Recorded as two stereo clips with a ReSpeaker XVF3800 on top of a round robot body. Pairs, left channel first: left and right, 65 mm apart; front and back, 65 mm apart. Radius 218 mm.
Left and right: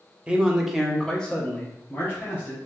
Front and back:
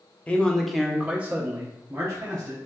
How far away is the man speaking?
About 1.0 m.